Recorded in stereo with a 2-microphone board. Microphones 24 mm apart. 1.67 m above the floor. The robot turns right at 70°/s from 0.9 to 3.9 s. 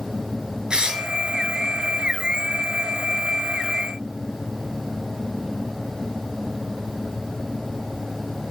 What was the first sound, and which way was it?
Tearing paper, 35° right (ahead or behind).